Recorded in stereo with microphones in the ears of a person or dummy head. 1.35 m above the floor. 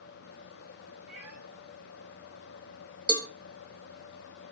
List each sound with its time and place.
1.1 s a cat meowing: 10° right (ahead or behind), 4 m
3.1 s a cowbell: 15° left (ahead or behind), 0.6 m